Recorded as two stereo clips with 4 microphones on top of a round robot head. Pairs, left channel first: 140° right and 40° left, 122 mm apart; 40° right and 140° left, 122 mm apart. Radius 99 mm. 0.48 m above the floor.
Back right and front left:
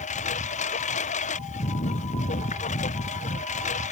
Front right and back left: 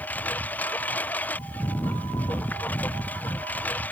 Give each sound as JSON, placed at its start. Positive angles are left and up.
{"t": 0.0, "sound": "a lawn mower", "azimuth_deg": -115}